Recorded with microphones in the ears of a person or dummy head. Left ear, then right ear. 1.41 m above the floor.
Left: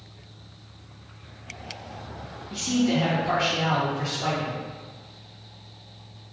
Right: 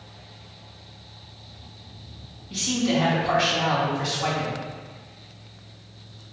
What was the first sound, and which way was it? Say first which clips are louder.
A man speaking: right 1 dB; 10° right (ahead or behind).